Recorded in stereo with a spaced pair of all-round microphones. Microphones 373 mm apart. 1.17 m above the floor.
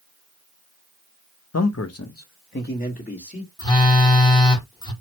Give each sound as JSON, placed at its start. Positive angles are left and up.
{"t": 1.5, "sound": "a man speaking", "side_deg": 45, "distance_m": 0.5}
{"t": 3.6, "sound": "a phone buzzing", "side_deg": 10, "distance_m": 0.9}